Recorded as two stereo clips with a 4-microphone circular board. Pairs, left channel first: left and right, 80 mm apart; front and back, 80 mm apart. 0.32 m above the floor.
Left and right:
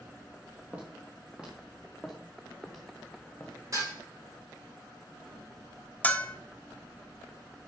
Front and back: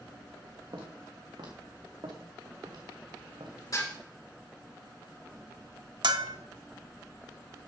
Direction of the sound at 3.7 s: 45° right.